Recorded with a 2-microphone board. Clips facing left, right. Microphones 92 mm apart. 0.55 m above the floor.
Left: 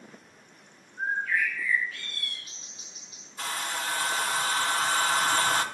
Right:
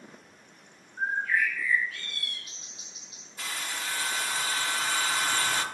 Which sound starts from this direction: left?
A hair dryer, at 3.4 s.